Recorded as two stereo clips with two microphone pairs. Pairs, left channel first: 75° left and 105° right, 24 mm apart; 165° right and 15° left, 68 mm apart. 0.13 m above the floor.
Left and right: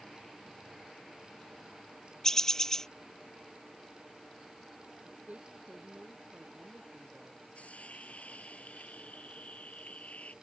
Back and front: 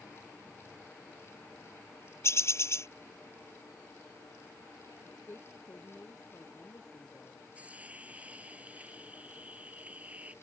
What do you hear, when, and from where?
2.2 s a bird: 145° left
5.0 s a woman speaking: 115° right
7.5 s a hiss: 80° left